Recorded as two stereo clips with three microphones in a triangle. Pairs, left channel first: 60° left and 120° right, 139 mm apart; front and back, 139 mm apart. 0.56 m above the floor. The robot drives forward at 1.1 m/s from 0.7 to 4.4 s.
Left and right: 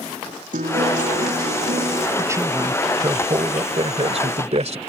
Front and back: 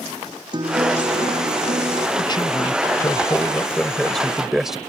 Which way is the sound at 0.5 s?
125° right.